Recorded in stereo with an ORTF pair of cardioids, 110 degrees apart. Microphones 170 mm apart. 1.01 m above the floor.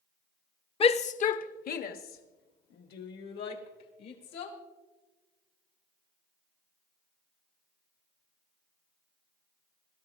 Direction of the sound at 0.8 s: 35° left.